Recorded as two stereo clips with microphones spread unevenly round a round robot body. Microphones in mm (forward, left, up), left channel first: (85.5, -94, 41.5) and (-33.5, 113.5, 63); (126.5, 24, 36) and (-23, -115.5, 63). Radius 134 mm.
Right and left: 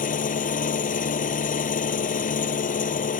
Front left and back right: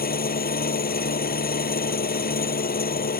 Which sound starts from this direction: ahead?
An engine running, at 0.0 s.